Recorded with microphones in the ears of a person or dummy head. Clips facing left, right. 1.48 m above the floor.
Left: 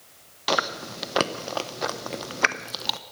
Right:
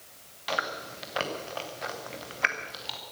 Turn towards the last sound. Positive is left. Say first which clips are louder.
# left 7 dB
turn(degrees=65)  # may be behind; listen again after turning